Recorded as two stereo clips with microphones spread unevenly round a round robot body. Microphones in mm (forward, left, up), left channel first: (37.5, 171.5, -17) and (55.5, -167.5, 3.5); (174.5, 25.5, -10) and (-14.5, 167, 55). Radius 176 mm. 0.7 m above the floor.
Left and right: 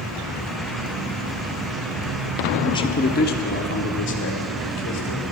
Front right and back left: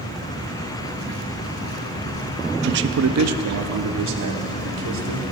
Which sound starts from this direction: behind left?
A man speaking, at 2.6 s.